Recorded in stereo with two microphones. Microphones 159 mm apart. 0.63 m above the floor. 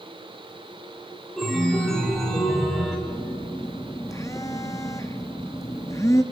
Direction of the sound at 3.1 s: 20° left (ahead or behind).